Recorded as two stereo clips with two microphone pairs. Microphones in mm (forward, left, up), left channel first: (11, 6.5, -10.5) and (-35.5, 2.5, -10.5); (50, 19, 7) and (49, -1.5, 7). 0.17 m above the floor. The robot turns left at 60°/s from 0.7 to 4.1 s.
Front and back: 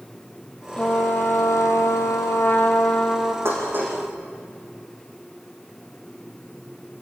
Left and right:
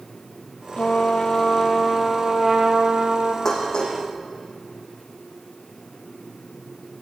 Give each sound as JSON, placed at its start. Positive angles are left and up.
{"t": 0.8, "sound": "a trumpet", "azimuth_deg": 75, "distance_m": 1.7}
{"t": 3.5, "sound": "dishes clattering", "azimuth_deg": 160, "distance_m": 5.5}